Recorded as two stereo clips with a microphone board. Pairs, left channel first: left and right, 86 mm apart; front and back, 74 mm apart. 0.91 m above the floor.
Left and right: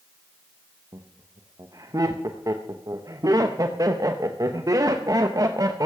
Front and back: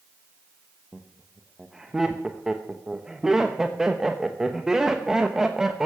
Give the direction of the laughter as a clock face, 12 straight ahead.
3 o'clock.